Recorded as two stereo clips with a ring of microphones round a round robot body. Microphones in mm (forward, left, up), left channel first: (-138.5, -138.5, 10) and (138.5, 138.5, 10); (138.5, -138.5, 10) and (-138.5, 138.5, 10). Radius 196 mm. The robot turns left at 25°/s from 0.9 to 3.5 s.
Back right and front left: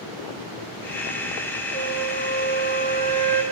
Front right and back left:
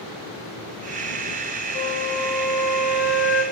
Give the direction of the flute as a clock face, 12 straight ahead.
8 o'clock.